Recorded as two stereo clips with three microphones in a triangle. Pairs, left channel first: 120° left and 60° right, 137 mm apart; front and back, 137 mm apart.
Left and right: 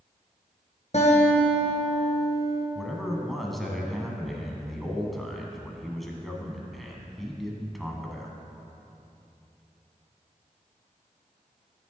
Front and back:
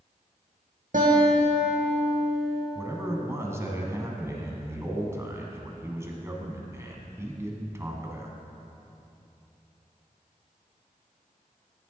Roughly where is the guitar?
Behind.